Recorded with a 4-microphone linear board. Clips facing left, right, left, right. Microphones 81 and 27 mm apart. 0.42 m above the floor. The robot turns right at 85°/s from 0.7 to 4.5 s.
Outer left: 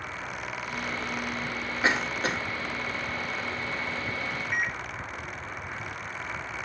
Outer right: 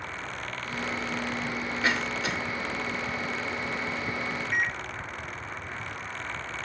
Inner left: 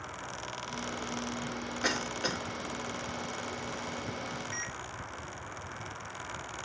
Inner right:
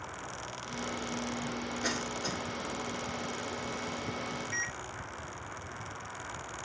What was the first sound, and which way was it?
A cough, 25° left (ahead or behind).